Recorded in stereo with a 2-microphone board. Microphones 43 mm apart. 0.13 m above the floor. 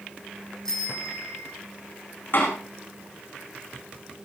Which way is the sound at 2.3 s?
50° left (ahead or behind).